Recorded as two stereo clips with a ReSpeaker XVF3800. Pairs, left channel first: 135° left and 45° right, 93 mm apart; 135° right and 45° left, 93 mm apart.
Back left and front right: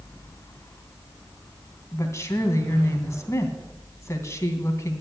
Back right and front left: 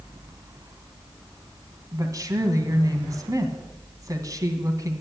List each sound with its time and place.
1.9 s a woman speaking: 85° left, 2.5 m